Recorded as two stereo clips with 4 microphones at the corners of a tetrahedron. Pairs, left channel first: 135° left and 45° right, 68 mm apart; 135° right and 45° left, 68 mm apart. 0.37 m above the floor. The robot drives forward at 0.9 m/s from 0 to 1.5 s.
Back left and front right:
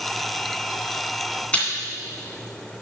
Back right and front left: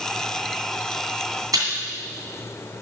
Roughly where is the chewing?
Ahead left.